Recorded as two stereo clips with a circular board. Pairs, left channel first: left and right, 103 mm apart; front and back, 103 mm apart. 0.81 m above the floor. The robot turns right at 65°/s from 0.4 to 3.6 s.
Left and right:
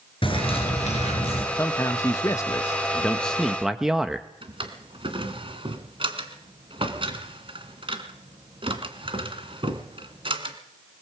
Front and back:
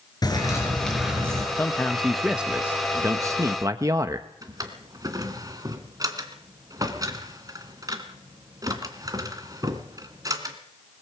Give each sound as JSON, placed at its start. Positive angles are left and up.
{"t": 0.2, "sound": "a bird", "azimuth_deg": 55, "distance_m": 5.5}
{"t": 1.6, "sound": "a man speaking", "azimuth_deg": 55, "distance_m": 1.0}
{"t": 4.4, "sound": "a drawer", "azimuth_deg": -125, "distance_m": 2.0}